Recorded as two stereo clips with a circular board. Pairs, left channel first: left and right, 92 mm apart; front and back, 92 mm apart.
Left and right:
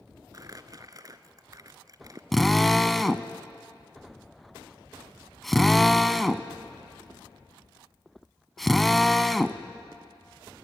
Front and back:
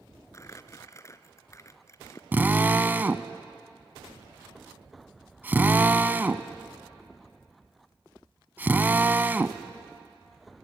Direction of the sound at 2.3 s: 175° left.